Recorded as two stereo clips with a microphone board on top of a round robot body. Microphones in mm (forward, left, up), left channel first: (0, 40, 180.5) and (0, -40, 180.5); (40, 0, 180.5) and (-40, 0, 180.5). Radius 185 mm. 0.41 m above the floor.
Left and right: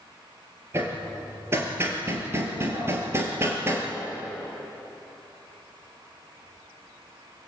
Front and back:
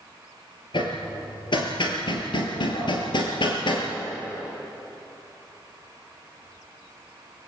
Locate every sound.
0.7 s hammering: 30° right, 3 m